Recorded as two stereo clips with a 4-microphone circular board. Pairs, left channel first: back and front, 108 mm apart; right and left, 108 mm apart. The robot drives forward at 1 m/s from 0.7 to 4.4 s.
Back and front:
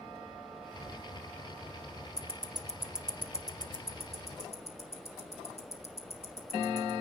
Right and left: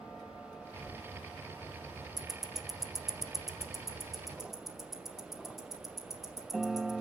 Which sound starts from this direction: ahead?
Ticking, at 2.2 s.